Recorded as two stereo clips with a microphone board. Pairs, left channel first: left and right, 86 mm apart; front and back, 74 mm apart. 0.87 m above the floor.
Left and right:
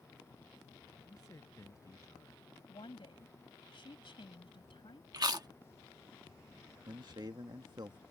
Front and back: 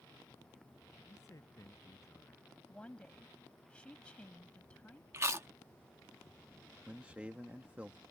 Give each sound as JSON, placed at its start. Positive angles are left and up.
{"t": 1.1, "sound": "a man speaking", "azimuth_deg": 40}
{"t": 2.7, "sound": "a woman speaking", "azimuth_deg": 75}
{"t": 5.1, "sound": "chewing", "azimuth_deg": -130}
{"t": 6.9, "sound": "a man speaking", "azimuth_deg": -110}